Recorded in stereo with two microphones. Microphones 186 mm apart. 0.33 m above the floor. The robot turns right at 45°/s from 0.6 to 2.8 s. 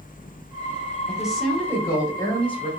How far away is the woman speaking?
About 1.6 m.